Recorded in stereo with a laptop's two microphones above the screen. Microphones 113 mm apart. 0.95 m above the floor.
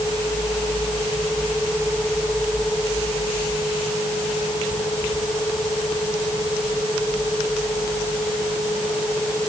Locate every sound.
Only background noise.